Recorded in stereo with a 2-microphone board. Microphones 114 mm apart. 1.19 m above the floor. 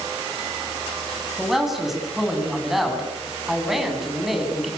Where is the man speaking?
Centre (ahead or behind), 9.5 m.